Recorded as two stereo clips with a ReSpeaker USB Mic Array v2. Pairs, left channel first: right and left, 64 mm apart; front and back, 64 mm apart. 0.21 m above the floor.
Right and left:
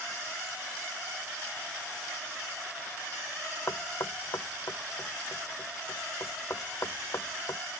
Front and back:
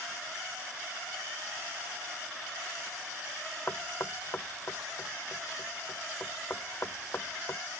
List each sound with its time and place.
3.7 s knocking: 50° right